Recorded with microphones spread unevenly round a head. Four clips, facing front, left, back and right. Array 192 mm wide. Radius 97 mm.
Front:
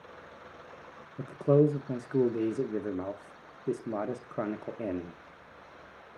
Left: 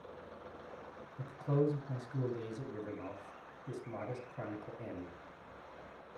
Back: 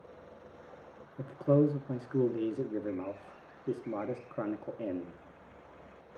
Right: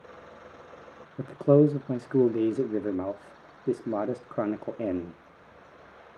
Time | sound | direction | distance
1.2 | a man speaking | 65° right | 0.9 m